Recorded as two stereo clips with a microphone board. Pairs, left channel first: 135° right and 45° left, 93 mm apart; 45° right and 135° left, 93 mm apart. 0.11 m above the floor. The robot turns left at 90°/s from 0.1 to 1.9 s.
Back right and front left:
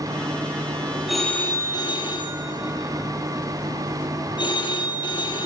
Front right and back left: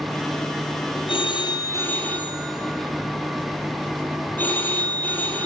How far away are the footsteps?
I don't hear footsteps.